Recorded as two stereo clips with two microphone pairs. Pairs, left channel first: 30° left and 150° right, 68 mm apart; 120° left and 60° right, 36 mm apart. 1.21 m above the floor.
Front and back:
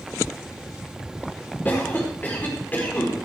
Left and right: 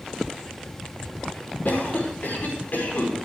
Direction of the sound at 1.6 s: 90° left.